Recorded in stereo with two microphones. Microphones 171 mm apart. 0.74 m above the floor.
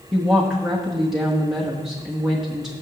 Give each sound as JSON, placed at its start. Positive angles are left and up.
{"t": 0.1, "sound": "a woman speaking", "side_deg": 0, "distance_m": 1.2}